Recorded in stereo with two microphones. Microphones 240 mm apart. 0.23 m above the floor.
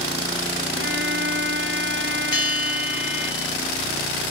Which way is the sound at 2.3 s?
65° left (ahead or behind).